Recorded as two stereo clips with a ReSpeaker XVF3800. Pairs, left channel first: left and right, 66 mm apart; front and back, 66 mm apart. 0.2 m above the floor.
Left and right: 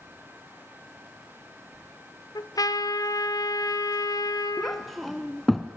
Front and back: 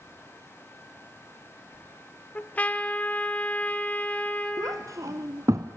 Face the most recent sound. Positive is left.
turn(degrees=175)